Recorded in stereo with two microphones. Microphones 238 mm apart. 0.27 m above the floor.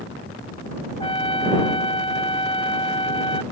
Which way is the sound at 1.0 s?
20° left (ahead or behind).